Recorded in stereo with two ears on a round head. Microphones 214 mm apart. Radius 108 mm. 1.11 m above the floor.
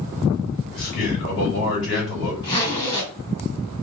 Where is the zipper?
20° left (ahead or behind), 1.9 m.